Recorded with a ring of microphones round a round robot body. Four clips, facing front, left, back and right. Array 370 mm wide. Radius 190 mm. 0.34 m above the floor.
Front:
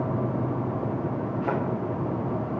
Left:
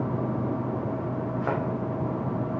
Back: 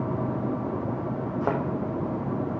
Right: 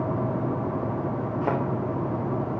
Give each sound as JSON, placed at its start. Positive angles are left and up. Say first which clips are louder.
{"t": 1.4, "sound": "a thud", "louder": "right 3 dB, back 2 dB", "azimuth_deg": -165, "distance_m": 3.0}